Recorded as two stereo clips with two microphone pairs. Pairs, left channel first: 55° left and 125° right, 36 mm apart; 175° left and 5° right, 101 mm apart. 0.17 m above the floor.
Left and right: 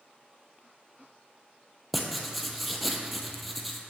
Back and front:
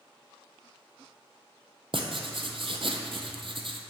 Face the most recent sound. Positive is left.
turn(degrees=-30)